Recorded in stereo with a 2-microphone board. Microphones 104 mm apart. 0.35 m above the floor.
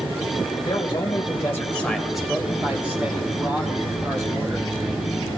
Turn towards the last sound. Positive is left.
turn(degrees=-30)  # may be behind; listen again after turning